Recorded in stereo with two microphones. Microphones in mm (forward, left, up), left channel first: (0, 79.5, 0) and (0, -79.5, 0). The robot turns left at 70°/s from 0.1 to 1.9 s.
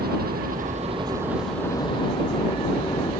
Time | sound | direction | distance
0.0 | a helicopter | 85° right | ?